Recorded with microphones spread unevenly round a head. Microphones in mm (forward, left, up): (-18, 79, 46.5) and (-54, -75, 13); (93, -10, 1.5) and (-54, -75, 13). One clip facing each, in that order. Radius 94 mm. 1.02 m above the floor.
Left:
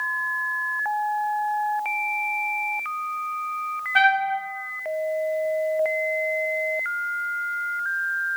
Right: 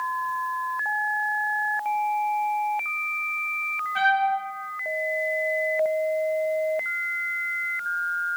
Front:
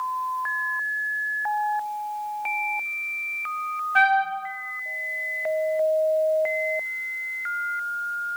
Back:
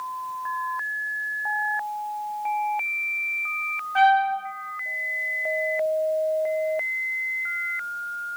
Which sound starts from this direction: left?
A trumpet, at 4.0 s.